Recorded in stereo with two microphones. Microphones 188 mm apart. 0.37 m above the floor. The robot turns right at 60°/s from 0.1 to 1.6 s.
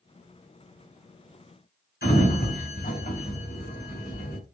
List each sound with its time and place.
2.0 s a sliding door: 55° left (ahead or behind), 1.7 m